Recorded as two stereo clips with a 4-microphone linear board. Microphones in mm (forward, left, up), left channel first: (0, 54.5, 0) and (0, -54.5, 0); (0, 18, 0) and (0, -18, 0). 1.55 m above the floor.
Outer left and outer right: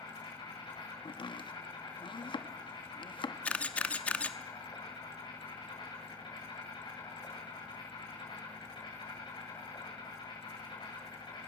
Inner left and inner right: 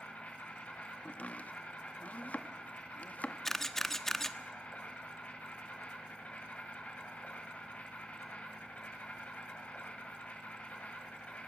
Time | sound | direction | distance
0.0 | an insect | 45° left (ahead or behind) | 7 m
1.1 | chopping | 50° left (ahead or behind) | 1.3 m
3.5 | a camera shutter | 10° left (ahead or behind) | 1.0 m